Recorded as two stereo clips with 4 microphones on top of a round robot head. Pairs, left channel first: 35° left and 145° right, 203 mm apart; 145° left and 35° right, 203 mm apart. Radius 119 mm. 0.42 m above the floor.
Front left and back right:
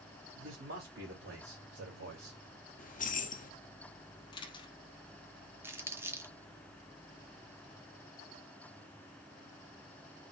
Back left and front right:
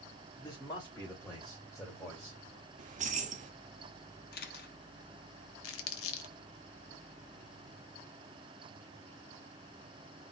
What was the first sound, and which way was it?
A man speaking, 145° right.